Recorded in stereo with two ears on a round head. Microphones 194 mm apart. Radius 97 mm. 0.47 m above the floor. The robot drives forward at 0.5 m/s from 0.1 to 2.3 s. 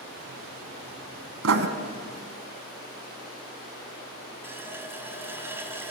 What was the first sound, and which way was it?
Writing, 70° right (ahead or behind).